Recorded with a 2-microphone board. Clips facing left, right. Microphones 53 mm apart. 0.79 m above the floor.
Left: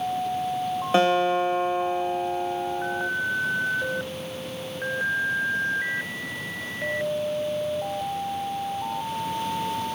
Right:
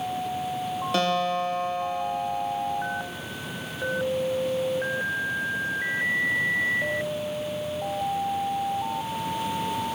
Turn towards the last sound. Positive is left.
turn(degrees=25)  # may be behind; listen again after turning